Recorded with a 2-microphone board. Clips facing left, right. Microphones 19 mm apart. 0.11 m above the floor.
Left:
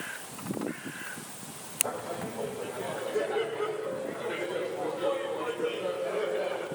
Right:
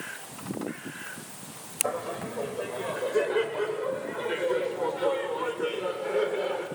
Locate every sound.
1.8 s laughter: 65° right (ahead or behind), 7.5 m; by 6.7 s 55° right (ahead or behind), 9.5 m